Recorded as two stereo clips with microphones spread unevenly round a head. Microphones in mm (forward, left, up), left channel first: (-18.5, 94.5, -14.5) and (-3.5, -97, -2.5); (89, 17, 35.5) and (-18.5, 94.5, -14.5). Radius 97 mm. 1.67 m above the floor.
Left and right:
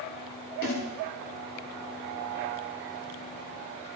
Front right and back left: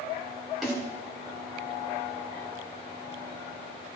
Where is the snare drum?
50° left, 10 m.